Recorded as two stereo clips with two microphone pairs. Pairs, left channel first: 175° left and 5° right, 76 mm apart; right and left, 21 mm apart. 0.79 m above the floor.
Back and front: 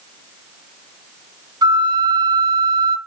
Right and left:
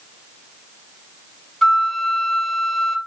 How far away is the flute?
About 1.1 m.